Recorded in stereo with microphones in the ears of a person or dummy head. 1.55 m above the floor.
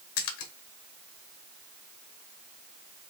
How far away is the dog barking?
No dog barking in this recording.